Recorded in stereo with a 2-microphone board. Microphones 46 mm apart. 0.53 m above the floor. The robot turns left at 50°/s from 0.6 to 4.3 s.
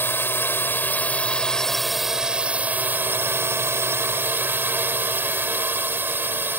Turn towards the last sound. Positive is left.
turn(degrees=-120)